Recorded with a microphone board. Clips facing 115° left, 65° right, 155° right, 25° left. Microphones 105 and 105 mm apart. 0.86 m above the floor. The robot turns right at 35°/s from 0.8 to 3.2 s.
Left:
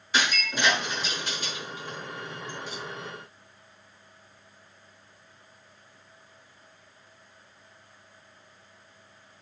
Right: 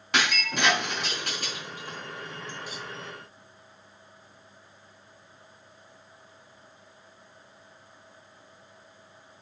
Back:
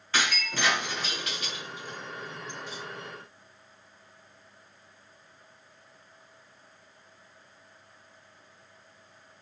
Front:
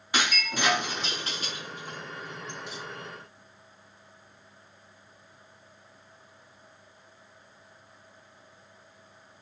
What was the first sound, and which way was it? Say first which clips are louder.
Breaking glass: even, front 1 dB; 55° right.